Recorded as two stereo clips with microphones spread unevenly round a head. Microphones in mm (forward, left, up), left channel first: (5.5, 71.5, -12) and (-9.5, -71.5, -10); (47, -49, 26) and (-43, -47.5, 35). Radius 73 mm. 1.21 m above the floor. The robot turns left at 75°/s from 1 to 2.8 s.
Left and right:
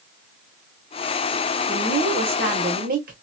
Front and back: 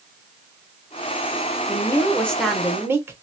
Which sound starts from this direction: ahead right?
A woman speaking, at 1.7 s.